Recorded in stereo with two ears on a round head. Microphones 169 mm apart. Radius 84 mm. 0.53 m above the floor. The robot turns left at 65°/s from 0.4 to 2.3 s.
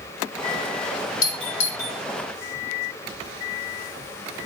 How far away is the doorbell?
About 2.5 m.